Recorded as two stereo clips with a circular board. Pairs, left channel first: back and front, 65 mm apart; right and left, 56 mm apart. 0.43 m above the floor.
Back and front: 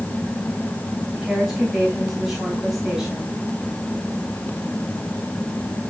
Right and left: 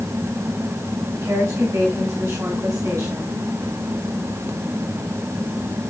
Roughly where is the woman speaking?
Left.